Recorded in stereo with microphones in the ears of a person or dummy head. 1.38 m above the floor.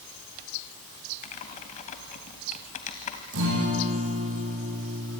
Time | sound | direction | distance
1.2 | typing on a keyboard | 35° left (ahead or behind) | 2 m
3.3 | a guitar | 65° right (ahead or behind) | 7.5 m